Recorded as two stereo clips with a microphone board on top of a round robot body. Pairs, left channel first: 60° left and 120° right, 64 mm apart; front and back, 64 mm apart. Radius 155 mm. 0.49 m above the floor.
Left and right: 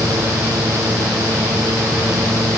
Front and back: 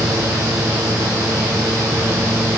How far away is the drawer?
I don't hear a drawer.